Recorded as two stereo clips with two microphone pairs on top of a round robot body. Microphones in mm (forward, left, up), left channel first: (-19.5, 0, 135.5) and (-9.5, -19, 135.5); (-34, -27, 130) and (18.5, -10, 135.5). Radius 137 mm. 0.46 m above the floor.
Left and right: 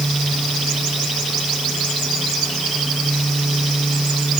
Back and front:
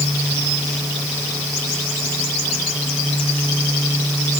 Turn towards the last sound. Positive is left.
No sound to turn to.